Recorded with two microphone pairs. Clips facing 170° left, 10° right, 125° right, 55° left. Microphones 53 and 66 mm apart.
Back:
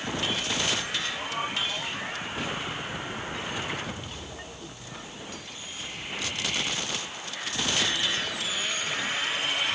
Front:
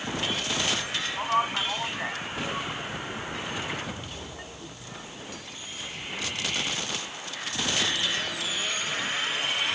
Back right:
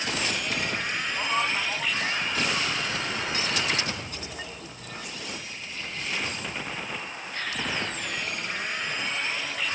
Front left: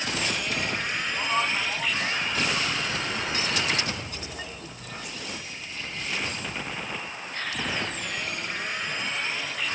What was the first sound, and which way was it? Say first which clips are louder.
A man speaking: front 5 dB, front left 1 dB; 40° right.